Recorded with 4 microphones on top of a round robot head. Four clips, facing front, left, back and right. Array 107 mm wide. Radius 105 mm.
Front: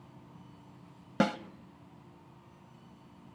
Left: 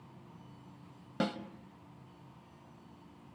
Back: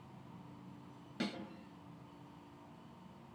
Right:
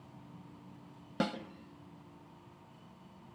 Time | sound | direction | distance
1.2 | a snare drum | 5° right | 1.4 m